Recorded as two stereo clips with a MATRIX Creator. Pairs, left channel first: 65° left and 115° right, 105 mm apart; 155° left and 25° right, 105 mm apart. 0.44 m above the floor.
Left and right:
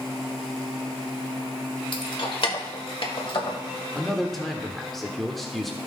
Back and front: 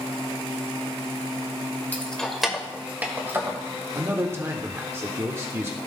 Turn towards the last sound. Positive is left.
turn(degrees=-20)